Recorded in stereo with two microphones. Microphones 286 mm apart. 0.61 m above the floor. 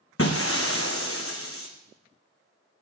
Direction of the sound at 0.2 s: 55° left (ahead or behind).